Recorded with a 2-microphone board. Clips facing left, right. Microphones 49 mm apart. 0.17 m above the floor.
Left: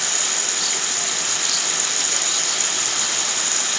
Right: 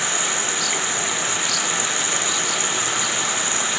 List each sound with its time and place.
0.0 s running water: 20° right (ahead or behind)